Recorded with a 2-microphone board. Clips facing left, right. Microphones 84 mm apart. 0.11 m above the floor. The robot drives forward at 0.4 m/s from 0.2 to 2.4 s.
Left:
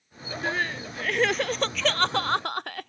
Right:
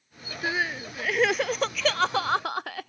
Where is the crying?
5° right (ahead or behind).